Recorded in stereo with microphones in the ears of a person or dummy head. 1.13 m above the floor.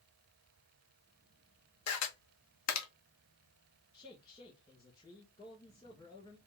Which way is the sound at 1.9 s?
80° left.